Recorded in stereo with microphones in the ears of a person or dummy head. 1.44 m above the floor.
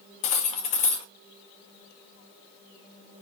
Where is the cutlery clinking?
35° left (ahead or behind), 0.8 m.